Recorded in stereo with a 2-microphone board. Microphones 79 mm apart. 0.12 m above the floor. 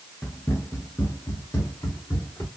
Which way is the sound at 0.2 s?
25° left (ahead or behind).